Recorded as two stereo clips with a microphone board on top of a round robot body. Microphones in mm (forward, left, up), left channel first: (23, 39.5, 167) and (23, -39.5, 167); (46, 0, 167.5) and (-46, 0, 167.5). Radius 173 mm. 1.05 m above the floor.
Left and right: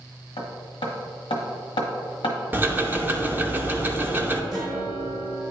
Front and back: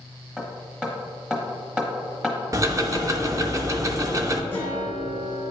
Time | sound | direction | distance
0.4 | hammering | 95° left | 1.0 m
2.5 | ticking | 145° right | 0.9 m
4.5 | a guitar | 65° right | 2 m